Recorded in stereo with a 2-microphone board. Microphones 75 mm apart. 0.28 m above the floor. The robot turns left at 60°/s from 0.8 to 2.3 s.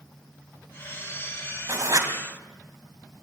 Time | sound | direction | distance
1.7 | writing | 50° right (ahead or behind) | 2 m